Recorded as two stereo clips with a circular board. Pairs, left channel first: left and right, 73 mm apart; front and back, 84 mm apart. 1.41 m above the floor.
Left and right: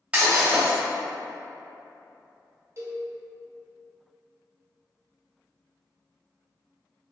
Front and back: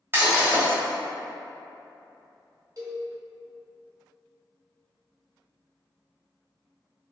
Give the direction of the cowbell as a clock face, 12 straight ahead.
5 o'clock.